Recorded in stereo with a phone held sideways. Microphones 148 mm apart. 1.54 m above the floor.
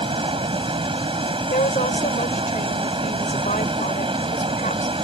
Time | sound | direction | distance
0.0 | running water | 35° right (ahead or behind) | ?
1.5 | a woman speaking | 60° left (ahead or behind) | ?